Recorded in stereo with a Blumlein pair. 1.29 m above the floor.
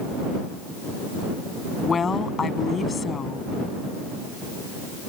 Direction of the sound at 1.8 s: 15° left.